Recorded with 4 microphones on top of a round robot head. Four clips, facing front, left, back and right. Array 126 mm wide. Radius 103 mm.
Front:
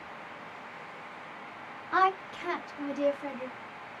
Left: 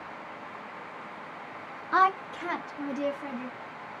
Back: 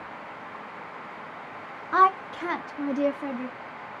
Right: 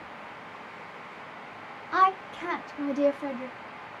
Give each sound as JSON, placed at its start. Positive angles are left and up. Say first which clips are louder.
{"t": 1.9, "sound": "a woman speaking", "louder": "even, back 6 dB", "azimuth_deg": 130, "distance_m": 0.6}